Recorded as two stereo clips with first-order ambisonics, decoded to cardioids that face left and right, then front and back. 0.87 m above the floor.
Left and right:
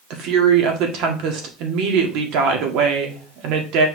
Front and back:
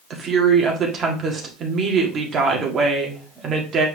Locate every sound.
0.1 s a woman speaking: 120° right, 1.7 m